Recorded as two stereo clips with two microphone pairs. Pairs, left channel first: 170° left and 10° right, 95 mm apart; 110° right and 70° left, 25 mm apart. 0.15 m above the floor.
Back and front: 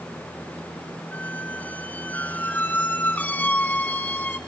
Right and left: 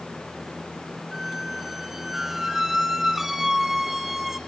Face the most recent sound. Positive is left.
turn(degrees=135)